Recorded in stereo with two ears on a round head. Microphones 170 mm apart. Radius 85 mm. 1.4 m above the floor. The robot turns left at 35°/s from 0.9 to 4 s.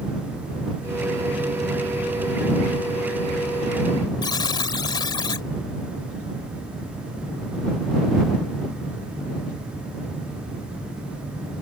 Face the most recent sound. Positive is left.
turn(degrees=25)  # may be behind; listen again after turning